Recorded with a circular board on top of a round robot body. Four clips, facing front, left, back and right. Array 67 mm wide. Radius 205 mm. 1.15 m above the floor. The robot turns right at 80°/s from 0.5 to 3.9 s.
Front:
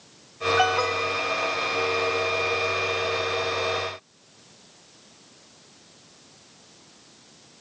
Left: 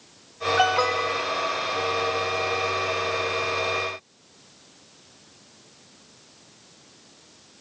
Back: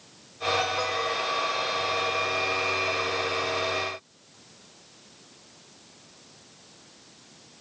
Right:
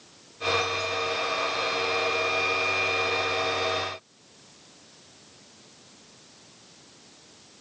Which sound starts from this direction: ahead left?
An alarm, at 0.6 s.